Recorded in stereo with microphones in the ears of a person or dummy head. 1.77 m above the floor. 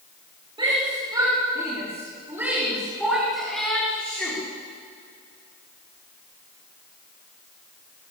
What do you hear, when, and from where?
0.6 s a shout: 30° right (ahead or behind), 5 m; by 4.4 s 5° left (ahead or behind), 6 m